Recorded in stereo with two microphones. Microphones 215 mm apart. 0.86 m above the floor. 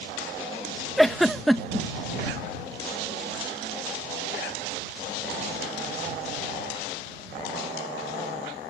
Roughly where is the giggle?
Centre.